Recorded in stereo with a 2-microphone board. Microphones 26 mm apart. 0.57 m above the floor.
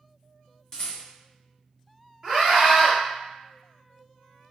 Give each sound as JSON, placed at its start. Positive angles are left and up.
{"t": 0.7, "sound": "a rattle", "side_deg": 25, "distance_m": 0.9}
{"t": 2.2, "sound": "a scream", "side_deg": -20, "distance_m": 1.3}